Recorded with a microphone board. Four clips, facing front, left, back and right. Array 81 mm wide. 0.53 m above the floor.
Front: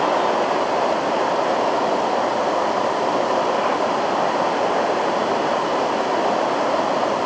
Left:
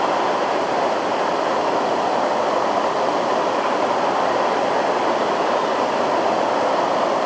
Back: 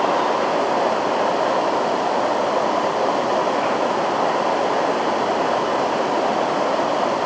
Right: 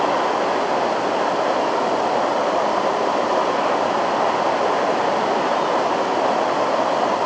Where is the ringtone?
I don't hear a ringtone.